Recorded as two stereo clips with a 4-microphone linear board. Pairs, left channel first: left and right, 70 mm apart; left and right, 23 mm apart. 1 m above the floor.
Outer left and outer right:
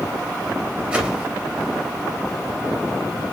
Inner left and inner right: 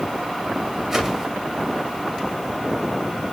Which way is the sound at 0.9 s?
15° right (ahead or behind).